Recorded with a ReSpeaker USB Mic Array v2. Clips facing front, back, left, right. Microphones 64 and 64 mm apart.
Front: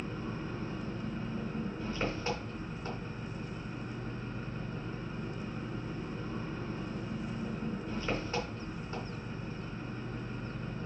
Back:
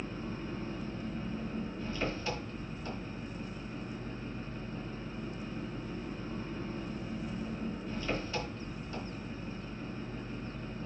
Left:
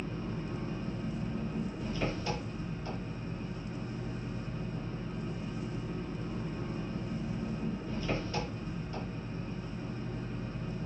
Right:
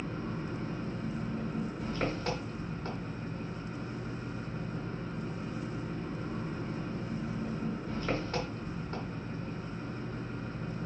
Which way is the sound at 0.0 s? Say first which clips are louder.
Front 1 dB, right 1 dB; 60° right.